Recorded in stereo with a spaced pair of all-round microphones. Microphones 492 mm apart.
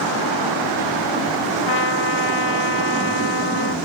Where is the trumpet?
60° right (ahead or behind).